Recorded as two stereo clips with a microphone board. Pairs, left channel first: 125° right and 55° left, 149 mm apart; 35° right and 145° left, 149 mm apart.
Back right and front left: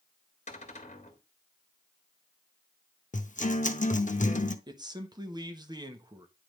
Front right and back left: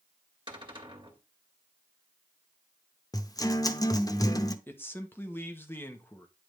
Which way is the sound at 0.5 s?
160° right.